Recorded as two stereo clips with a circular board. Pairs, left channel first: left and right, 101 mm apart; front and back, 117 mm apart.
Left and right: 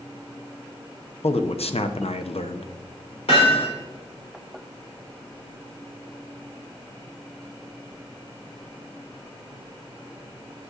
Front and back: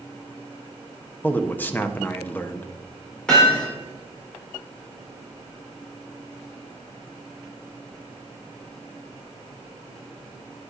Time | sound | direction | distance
1.2 | a man speaking | 75° left | 0.6 m
3.3 | hammering | 80° left | 3.5 m